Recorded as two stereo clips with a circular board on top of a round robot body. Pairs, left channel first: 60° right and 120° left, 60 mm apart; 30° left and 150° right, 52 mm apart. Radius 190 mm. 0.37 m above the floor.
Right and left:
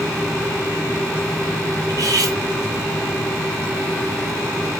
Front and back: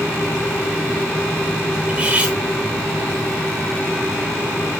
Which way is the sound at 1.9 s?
145° left.